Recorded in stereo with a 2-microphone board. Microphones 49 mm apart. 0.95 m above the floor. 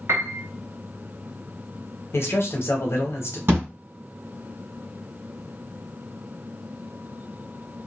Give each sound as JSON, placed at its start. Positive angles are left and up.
{"t": 0.1, "sound": "a piano", "side_deg": -60, "distance_m": 0.7}
{"t": 2.1, "sound": "a man speaking", "side_deg": 55, "distance_m": 0.8}
{"t": 3.5, "sound": "a thud", "side_deg": -50, "distance_m": 1.5}